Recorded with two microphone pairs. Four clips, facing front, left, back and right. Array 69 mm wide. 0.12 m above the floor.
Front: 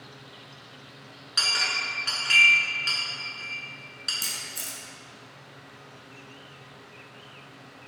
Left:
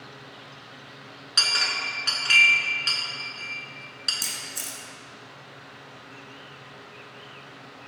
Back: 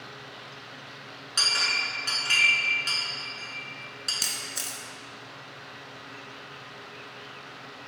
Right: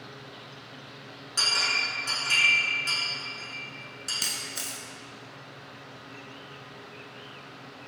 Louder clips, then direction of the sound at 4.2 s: Right 1 dB, back 1 dB; 165° right.